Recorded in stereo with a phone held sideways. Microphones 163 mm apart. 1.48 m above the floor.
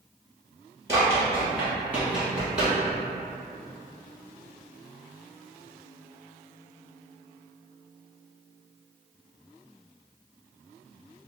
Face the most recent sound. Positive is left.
turn(degrees=-5)  # may be behind; listen again after turning